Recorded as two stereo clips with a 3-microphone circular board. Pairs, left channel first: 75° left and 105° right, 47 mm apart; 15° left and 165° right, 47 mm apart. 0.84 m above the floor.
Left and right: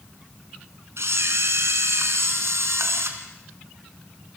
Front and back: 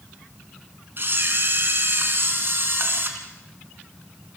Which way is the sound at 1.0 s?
125° right.